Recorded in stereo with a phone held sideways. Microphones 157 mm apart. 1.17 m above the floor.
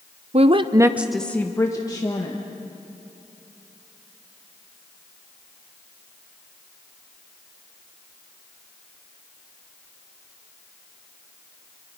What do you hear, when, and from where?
0.3 s a woman speaking: 45° right (ahead or behind), 0.8 m; by 2.4 s 30° left (ahead or behind), 1.8 m